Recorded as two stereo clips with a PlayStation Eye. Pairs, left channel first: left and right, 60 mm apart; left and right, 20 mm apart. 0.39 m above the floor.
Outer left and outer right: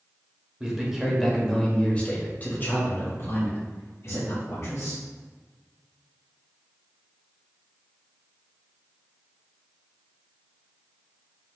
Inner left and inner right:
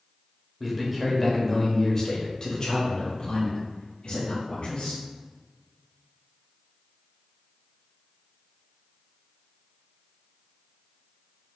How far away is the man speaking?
About 1.1 m.